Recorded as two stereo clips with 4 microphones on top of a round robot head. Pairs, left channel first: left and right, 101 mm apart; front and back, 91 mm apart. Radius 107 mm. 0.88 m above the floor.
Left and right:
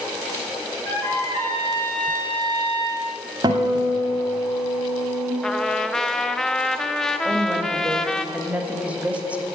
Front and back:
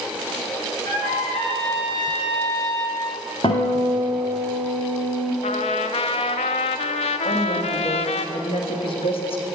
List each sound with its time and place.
0.8 s a trumpet: 15° left, 4.5 m
3.4 s a guitar: 55° right, 0.8 m
5.4 s a trumpet: 5° left, 0.5 m
7.2 s a woman speaking: 15° right, 1.6 m